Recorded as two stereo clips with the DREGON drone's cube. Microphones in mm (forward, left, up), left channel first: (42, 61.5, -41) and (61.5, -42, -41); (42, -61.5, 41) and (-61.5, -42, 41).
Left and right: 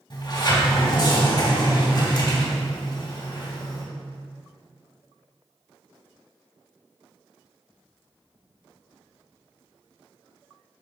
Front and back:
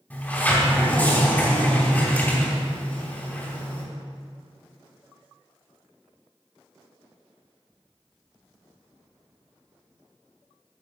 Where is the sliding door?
65° left, 3 m.